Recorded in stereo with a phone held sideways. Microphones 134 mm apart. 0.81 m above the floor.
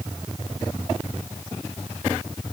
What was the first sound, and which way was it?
Only background noise.